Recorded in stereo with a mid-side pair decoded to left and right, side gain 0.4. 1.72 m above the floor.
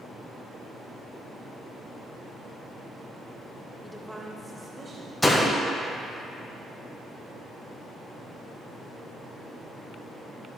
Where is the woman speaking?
5° left, 0.9 m; by 5.1 s 40° right, 1.2 m.